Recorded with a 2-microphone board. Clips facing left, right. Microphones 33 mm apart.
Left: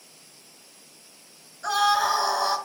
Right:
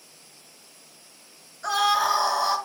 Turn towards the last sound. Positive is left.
turn(degrees=-5)  # may be behind; listen again after turning